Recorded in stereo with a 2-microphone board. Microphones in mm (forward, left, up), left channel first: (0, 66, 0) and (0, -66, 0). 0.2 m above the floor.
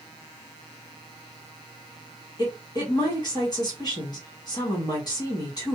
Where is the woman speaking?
30° left (ahead or behind), 1.5 m.